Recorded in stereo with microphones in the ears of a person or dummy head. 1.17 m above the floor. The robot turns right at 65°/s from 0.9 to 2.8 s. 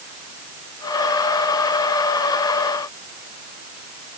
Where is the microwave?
I don't hear a microwave.